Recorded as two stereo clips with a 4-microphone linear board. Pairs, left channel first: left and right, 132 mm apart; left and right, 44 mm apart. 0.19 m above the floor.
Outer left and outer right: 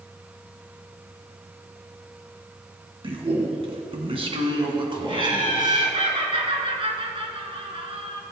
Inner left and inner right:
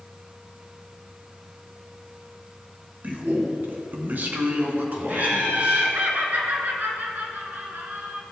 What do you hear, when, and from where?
3.0 s a man speaking: 45° right (ahead or behind), 1.7 m; by 5.9 s 30° right (ahead or behind), 2.5 m
5.1 s laughter: 45° right (ahead or behind), 2.5 m